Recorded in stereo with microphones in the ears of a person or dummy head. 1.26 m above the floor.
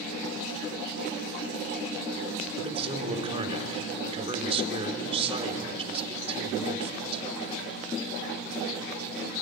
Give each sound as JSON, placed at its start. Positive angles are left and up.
{"t": 2.6, "sound": "a man speaking", "side_deg": -30, "distance_m": 4.0}